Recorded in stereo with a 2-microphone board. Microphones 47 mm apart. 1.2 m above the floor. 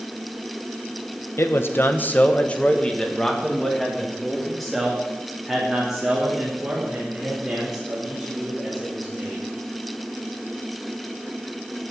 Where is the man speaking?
60° left (ahead or behind), 1.0 m; by 9.4 s 15° right (ahead or behind), 5.5 m.